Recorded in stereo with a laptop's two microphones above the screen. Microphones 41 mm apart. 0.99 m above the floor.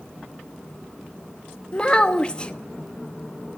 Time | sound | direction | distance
1.7 | a child speaking | 25° left (ahead or behind) | 1.0 m